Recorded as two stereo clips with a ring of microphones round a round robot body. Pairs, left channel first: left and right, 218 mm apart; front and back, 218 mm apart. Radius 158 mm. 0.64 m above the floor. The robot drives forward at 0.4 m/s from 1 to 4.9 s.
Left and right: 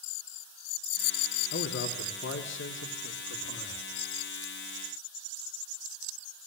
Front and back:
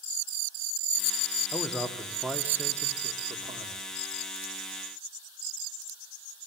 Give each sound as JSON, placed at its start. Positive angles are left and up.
{"t": 1.5, "sound": "a man speaking", "azimuth_deg": 85, "distance_m": 1.9}